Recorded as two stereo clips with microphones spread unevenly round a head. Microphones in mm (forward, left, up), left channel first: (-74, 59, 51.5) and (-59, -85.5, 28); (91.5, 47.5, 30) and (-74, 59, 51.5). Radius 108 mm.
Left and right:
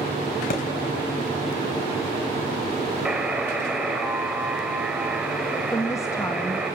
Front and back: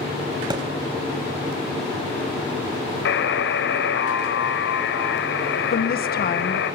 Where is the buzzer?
5° left, 2.5 m.